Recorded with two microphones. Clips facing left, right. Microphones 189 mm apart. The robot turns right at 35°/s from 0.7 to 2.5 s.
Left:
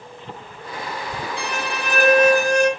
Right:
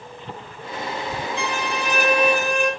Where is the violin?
90° left, 3 m; by 2.7 s 130° left, 3 m.